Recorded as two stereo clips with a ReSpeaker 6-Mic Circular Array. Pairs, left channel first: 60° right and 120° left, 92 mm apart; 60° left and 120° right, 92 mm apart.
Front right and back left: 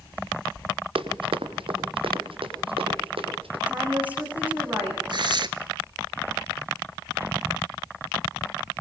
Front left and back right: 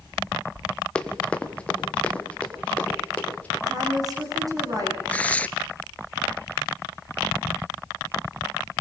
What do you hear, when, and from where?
0.9 s running footsteps: 140° left, 1.5 m; by 3.6 s 135° left, 4 m
3.7 s a woman speaking: 165° right, 6.5 m
5.1 s tearing paper: 130° left, 0.7 m